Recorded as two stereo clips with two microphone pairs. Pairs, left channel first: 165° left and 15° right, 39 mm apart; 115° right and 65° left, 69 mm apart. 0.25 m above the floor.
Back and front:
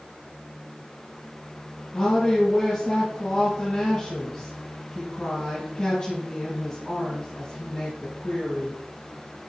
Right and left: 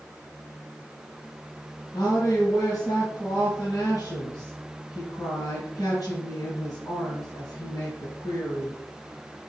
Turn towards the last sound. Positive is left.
turn(degrees=-130)